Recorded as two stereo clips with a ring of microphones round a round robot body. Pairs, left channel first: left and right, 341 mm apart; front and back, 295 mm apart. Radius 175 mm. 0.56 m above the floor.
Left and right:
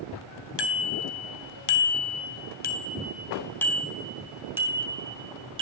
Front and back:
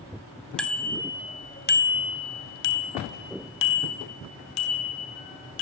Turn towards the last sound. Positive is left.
turn(degrees=-15)